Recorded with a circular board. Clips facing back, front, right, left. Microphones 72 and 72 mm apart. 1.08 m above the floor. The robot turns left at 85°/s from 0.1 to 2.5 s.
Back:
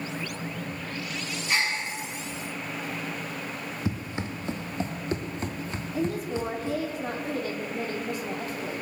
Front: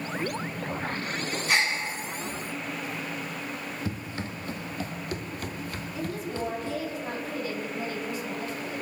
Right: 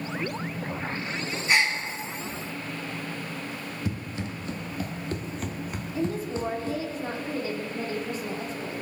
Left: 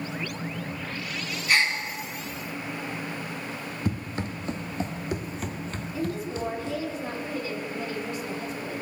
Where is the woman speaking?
145° right, 2.5 m.